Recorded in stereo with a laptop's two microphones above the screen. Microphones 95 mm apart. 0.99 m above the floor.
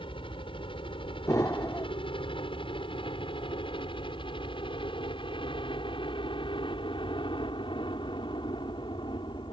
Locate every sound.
0.0 s a helicopter: 70° left (ahead or behind); by 9.5 s 60° left (ahead or behind)
1.3 s an explosion: 35° left (ahead or behind)